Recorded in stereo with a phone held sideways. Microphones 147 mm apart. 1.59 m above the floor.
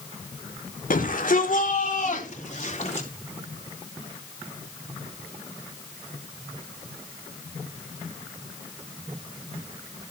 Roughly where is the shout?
Left.